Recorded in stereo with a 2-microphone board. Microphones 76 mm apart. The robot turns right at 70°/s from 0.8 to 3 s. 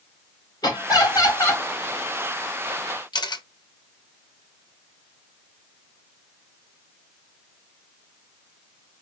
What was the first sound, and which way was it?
Laughter, 85° left.